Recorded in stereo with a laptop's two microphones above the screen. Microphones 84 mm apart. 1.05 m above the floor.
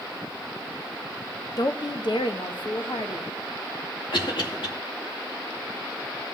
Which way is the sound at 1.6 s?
45° left (ahead or behind).